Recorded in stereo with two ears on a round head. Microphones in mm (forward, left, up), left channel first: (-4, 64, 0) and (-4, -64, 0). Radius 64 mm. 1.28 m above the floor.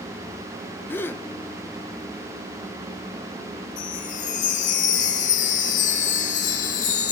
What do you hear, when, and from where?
0.9 s a gasp: 15° left (ahead or behind), 0.9 m
3.8 s a chime: 55° left (ahead or behind), 3 m